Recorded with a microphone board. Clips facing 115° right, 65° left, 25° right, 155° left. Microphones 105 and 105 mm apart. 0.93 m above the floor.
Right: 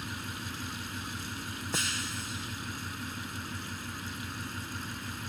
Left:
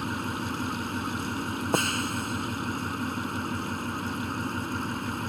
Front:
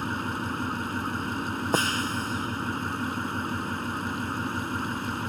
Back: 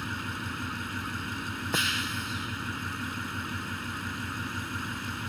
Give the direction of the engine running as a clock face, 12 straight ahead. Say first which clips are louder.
Left 9 dB, front 6 dB; 11 o'clock.